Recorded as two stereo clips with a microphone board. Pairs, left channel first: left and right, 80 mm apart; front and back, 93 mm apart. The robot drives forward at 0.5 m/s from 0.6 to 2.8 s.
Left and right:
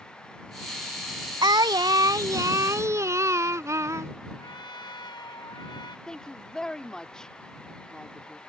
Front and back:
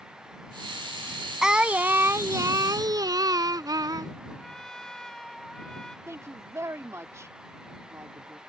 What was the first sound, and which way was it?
Singing, 95° right.